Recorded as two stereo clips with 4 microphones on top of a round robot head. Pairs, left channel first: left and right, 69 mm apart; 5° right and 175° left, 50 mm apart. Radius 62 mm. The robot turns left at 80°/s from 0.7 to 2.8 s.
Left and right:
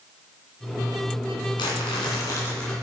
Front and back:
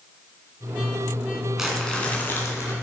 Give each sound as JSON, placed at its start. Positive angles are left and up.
{"t": 1.6, "sound": "crumpling", "azimuth_deg": 95, "distance_m": 2.5}